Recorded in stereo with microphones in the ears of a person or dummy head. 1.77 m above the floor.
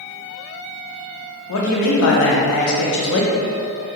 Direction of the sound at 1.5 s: 70° left (ahead or behind).